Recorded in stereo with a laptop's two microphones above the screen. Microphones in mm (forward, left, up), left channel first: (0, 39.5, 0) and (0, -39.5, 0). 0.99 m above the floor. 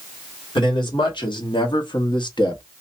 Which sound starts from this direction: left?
A man speaking, at 0.6 s.